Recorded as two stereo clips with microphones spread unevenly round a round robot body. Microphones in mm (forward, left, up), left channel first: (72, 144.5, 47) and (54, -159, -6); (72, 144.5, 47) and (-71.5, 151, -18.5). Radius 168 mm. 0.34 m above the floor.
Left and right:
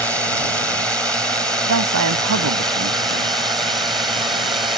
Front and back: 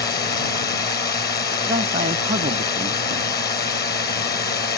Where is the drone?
5° right; by 4.8 s 15° right.